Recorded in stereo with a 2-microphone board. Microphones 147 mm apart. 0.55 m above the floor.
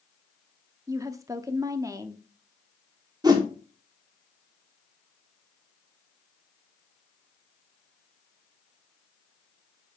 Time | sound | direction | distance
0.9 | a woman speaking | 20° right (ahead or behind) | 0.7 m
3.2 | a whoosh | 25° right (ahead or behind) | 1.4 m